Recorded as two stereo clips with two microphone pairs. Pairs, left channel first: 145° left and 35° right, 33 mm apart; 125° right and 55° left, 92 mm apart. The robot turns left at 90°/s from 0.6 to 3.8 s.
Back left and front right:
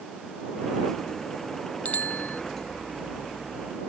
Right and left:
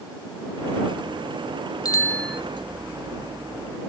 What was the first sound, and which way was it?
A bicycle bell, 170° right.